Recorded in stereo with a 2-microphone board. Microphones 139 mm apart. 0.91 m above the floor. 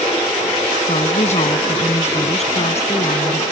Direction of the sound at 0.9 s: 55° left (ahead or behind).